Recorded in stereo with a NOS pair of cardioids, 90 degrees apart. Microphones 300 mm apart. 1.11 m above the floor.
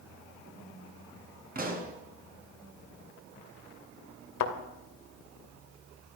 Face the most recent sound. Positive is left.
turn(degrees=70)